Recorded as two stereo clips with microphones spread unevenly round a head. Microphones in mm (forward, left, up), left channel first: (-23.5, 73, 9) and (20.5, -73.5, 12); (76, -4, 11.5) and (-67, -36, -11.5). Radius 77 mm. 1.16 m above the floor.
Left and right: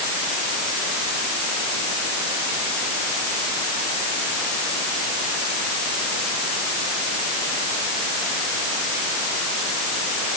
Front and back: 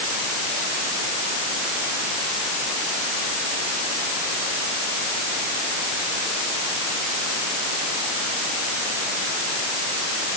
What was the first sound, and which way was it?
Only background noise.